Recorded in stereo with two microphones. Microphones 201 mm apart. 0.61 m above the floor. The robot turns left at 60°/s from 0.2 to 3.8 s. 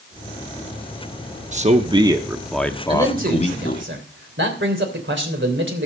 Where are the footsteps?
I don't hear footsteps.